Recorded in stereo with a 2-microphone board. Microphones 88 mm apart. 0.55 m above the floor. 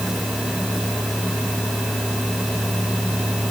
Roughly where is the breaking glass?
No breaking glass in this recording.